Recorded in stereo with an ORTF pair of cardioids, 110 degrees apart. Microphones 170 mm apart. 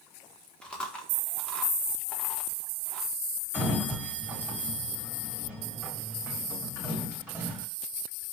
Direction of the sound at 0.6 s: 5° left.